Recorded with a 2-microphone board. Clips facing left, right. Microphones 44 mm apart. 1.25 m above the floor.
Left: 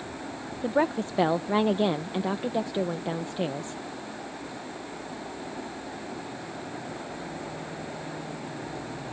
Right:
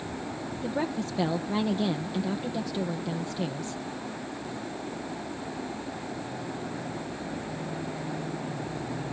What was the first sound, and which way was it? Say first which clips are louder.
A woman speaking: left 6 dB; 30° left (ahead or behind).